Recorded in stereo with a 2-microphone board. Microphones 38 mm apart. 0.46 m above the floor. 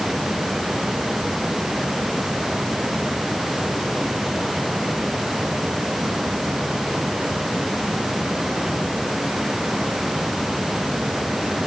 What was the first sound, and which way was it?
Only background noise.